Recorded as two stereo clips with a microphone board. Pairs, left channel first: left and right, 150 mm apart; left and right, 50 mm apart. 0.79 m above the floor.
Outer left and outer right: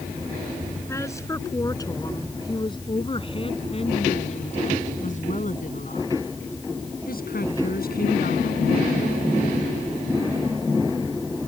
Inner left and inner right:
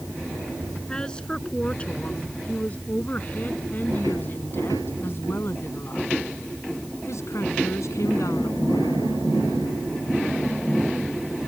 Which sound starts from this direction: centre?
A woman speaking, at 0.9 s.